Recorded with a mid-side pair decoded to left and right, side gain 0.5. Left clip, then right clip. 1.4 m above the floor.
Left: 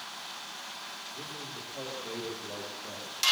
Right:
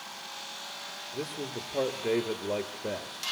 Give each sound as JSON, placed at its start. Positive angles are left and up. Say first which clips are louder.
{"t": 1.1, "sound": "a man speaking", "louder": "right 4 dB", "azimuth_deg": -70, "distance_m": 3.0}